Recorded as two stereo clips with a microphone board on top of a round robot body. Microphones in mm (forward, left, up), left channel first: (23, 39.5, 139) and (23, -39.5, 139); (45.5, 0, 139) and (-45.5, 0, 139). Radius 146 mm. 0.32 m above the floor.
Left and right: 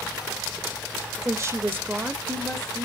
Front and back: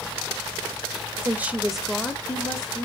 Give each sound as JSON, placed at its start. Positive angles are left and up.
{"t": 1.2, "sound": "a woman speaking", "azimuth_deg": -120, "distance_m": 1.1}